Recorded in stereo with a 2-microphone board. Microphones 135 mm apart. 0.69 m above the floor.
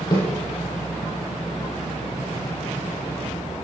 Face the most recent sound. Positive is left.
turn(degrees=30)  # may be behind; listen again after turning